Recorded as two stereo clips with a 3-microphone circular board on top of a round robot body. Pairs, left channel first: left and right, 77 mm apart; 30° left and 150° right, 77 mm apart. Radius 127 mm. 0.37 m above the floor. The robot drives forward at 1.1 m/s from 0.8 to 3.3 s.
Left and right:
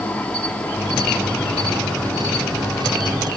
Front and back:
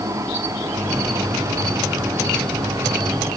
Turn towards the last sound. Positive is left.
turn(degrees=170)